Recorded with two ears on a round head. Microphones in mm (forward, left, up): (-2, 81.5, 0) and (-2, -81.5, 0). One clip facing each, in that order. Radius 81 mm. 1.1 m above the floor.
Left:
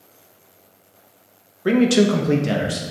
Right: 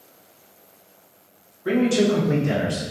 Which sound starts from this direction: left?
A man speaking, at 1.6 s.